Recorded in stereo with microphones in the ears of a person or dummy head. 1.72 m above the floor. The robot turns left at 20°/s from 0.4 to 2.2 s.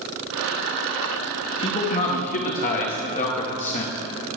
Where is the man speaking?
25° left (ahead or behind), 1.1 m; by 3.9 s 40° left (ahead or behind), 1.1 m.